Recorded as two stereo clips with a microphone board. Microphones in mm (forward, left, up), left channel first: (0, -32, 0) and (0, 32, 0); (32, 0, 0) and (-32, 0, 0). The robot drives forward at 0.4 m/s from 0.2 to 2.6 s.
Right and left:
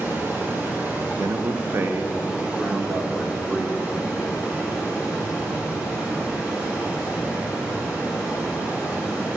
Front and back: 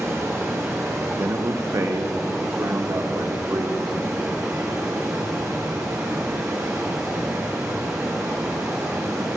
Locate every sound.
0.0 s running water: 140° left, 1.9 m; by 9.4 s 155° left, 2.5 m
1.2 s a man speaking: 125° left, 0.5 m; by 3.9 s 155° left, 1.0 m